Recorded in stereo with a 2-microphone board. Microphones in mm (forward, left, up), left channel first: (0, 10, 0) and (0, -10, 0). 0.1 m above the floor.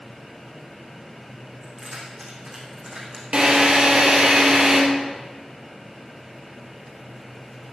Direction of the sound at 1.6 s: 45° right (ahead or behind).